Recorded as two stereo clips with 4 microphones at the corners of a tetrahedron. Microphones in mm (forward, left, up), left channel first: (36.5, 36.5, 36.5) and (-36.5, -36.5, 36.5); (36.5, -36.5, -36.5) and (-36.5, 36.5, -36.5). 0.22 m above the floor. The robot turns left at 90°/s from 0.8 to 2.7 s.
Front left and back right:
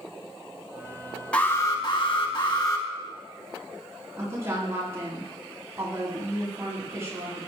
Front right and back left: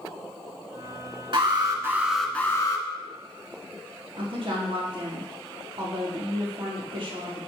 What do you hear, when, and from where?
1.3 s an alarm: 120° left, 2 m; by 2.9 s straight ahead, 2 m
4.2 s a woman speaking: 165° left, 5.5 m